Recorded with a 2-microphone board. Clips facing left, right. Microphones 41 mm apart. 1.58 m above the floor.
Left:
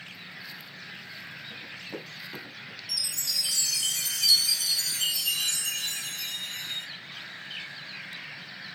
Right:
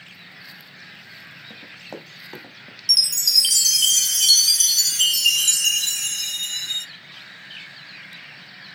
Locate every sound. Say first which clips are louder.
1.5 s running footsteps: right 3 dB; 65° right (ahead or behind), 4 m; by 2.8 s 45° right (ahead or behind), 2.5 m
2.9 s a chime: right 13 dB; 75° right (ahead or behind), 0.5 m